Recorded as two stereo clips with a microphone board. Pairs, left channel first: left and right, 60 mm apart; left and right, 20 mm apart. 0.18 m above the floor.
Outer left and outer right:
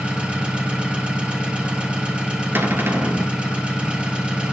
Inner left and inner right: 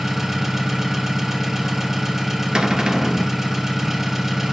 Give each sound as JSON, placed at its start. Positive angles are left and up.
{"t": 0.0, "sound": "an engine running", "side_deg": -15, "distance_m": 2.0}
{"t": 2.5, "sound": "a cupboard door", "side_deg": -40, "distance_m": 1.2}